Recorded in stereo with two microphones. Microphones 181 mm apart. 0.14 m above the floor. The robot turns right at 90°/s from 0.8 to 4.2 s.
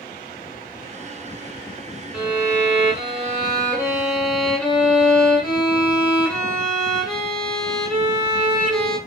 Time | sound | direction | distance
2.1 | a violin | straight behind | 1.2 m